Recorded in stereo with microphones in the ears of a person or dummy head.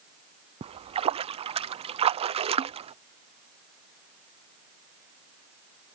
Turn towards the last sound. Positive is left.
turn(degrees=-35)  # may be behind; listen again after turning